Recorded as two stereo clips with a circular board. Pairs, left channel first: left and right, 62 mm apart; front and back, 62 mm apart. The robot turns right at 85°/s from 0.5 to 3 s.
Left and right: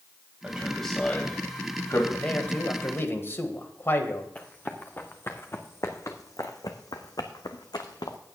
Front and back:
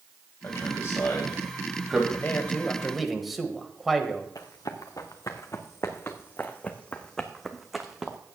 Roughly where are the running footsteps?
Ahead left.